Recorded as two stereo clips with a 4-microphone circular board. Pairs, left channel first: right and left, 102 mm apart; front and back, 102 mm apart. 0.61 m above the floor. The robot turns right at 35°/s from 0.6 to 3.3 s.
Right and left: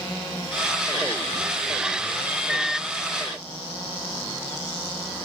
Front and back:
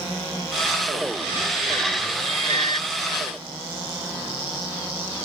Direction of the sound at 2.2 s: 165° left.